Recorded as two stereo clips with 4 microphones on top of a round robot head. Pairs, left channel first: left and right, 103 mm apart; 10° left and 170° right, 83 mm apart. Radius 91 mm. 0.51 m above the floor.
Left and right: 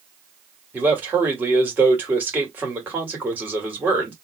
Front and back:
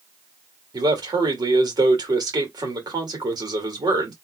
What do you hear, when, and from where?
0.7 s a man speaking: 160° right, 2.0 m